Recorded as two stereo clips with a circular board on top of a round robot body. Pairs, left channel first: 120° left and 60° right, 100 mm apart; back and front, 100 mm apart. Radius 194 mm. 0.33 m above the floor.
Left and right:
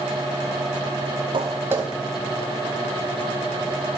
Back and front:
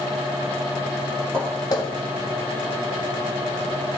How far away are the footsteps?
About 0.8 m.